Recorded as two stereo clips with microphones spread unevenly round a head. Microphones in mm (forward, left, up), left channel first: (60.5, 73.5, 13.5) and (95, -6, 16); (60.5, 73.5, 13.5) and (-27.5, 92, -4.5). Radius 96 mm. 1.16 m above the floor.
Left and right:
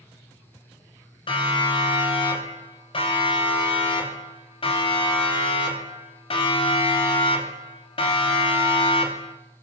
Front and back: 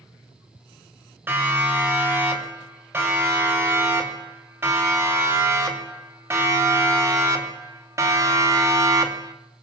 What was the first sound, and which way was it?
A siren, 100° left.